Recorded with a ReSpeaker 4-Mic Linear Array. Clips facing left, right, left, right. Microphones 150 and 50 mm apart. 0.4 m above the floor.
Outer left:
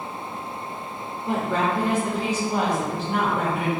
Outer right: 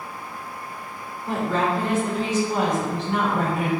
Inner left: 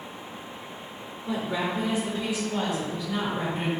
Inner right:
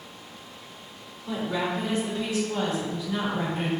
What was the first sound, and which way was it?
A woman speaking, 20° left (ahead or behind).